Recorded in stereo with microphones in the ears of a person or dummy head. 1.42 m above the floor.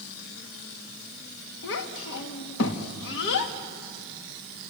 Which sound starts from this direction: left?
A child speaking, at 1.6 s.